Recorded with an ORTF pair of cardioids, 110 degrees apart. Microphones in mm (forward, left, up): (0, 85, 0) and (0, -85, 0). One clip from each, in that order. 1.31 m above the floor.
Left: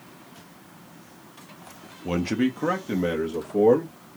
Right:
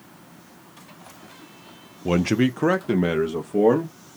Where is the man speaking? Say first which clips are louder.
Right 4 dB; 25° right, 0.6 m; by 4.0 s 30° right, 1.5 m.